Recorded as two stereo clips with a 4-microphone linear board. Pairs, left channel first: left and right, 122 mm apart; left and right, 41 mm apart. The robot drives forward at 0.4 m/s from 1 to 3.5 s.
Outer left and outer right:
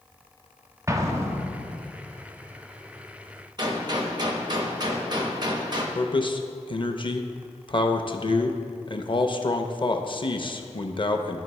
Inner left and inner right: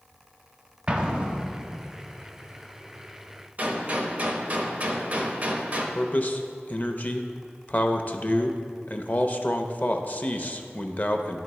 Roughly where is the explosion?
Right.